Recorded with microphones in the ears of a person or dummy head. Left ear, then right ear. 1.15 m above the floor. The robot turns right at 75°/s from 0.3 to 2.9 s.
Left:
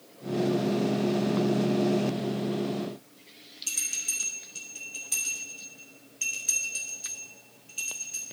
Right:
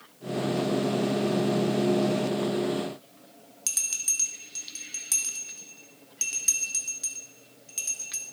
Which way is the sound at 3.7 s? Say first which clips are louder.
Right 2 dB; 55° right (ahead or behind).